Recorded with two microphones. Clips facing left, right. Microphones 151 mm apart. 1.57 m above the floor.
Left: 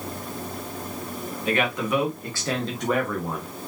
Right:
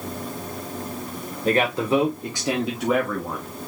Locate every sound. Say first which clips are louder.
1.4 s a man speaking: right 4 dB; 40° right (ahead or behind), 1.4 m; by 3.5 s 10° left (ahead or behind), 1.4 m